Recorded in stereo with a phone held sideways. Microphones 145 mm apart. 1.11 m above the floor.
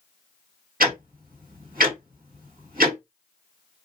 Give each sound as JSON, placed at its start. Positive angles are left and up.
{"t": 0.8, "sound": "ticking", "side_deg": -80, "distance_m": 2.0}